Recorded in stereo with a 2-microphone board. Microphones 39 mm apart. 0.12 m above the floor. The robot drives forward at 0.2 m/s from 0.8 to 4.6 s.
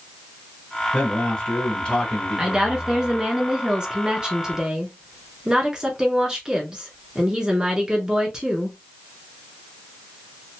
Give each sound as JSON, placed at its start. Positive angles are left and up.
{"t": 0.9, "sound": "a man speaking", "side_deg": 25, "distance_m": 1.8}
{"t": 2.4, "sound": "a woman speaking", "side_deg": -20, "distance_m": 1.1}